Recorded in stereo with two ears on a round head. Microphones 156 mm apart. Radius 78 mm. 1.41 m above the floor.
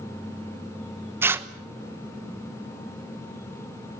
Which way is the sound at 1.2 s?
15° right (ahead or behind).